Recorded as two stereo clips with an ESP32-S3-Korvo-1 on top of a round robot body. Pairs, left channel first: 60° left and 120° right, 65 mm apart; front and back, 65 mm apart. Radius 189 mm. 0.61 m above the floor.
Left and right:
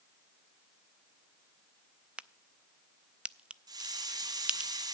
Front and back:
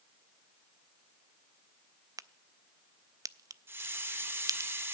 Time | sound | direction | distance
2.2 | a crack | 165° left | 0.5 m
3.7 | a hiss | 125° right | 2 m